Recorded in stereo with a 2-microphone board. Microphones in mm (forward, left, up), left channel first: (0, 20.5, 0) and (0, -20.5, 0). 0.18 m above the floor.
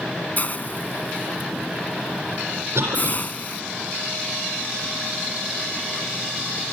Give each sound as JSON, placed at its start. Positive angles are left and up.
{"t": 0.4, "sound": "a hiss", "side_deg": 45, "distance_m": 0.5}
{"t": 2.8, "sound": "a cough", "side_deg": -80, "distance_m": 8.0}